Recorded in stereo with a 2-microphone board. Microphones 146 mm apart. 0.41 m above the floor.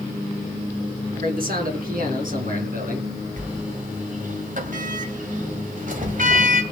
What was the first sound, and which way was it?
A man speaking, 70° right (ahead or behind).